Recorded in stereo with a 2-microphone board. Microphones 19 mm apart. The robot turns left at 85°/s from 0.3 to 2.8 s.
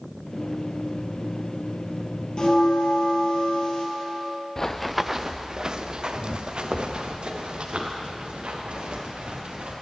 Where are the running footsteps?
20° left (ahead or behind), 0.5 m; by 9.7 s 70° right (ahead or behind), 3.5 m.